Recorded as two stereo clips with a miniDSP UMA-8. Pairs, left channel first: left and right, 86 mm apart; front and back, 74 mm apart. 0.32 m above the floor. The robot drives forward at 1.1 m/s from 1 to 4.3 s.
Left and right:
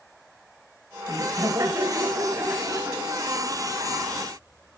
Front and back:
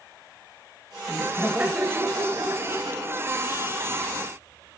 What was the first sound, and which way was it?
Laughter, 90° right.